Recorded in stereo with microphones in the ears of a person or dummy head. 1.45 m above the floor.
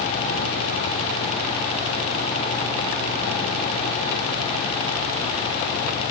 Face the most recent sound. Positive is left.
No sound to turn to.